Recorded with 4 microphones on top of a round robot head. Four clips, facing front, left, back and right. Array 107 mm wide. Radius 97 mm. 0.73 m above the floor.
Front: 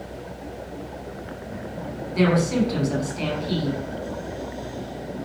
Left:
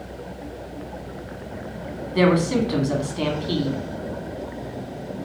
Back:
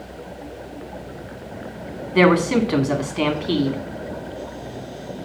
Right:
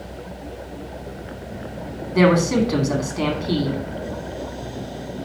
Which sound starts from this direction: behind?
A man speaking, at 2.1 s.